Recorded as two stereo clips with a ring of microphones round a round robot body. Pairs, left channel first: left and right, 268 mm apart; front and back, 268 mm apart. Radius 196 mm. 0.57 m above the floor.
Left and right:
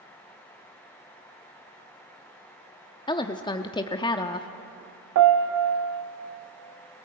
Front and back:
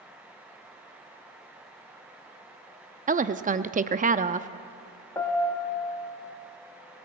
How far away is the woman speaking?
About 0.7 m.